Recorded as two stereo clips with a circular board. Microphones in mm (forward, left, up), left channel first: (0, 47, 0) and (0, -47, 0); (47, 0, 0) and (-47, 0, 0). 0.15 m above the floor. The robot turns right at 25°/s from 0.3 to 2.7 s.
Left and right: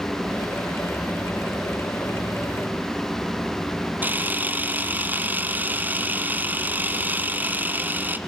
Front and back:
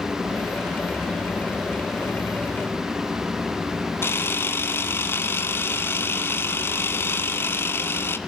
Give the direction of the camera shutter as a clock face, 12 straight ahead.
1 o'clock.